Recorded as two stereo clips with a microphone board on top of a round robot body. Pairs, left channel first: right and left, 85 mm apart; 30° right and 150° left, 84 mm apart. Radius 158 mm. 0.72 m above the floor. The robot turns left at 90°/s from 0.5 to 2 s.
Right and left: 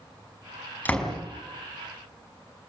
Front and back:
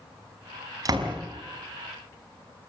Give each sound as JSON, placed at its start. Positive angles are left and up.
{"t": 0.8, "sound": "a door slam", "azimuth_deg": -160, "distance_m": 5.5}